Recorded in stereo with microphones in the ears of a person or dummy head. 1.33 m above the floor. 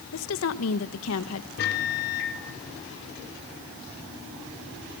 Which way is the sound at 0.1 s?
75° left (ahead or behind).